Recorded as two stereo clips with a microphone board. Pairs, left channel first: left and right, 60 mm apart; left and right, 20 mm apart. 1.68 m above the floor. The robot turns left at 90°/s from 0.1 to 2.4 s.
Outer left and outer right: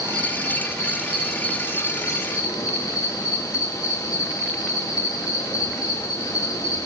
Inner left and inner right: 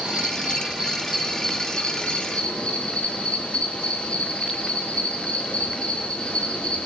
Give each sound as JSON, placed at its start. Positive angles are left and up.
{"t": 0.0, "sound": "an insect", "azimuth_deg": -70, "distance_m": 3.5}